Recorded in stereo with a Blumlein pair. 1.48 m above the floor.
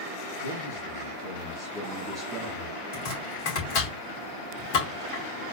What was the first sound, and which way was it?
A man speaking, 70° left.